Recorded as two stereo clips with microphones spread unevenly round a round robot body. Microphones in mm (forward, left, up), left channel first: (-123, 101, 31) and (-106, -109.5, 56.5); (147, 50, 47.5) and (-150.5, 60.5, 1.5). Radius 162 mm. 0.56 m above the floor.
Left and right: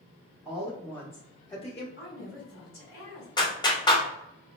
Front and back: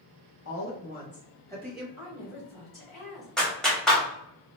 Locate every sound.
0.5 s a woman speaking: 10° left, 1.0 m; by 1.9 s 110° left, 1.0 m
2.0 s a woman speaking: 60° left, 1.9 m
3.4 s a clap: 105° left, 1.0 m